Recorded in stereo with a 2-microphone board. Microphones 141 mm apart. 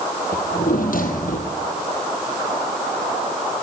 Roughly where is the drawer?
Left.